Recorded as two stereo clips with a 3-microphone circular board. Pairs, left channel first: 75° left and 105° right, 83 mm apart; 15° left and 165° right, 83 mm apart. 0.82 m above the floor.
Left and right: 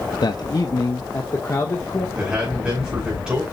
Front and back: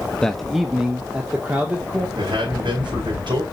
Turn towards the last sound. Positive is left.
turn(degrees=175)